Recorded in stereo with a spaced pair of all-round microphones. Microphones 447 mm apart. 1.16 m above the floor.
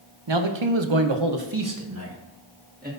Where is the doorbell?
No doorbell in this recording.